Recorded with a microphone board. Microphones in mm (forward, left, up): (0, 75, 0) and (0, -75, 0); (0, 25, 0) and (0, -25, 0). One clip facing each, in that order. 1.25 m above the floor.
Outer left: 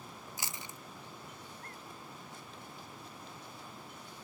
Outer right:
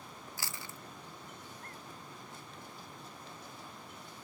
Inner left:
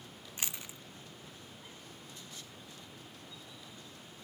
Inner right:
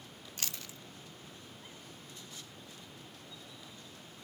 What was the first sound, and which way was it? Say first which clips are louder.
Chewing: even, inner left 1 dB; 20° left (ahead or behind).